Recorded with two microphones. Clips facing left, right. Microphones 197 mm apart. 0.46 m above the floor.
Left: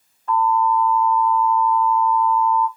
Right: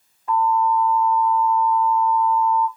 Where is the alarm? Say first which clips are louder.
Left 1 dB; 15° right (ahead or behind), 1.7 m.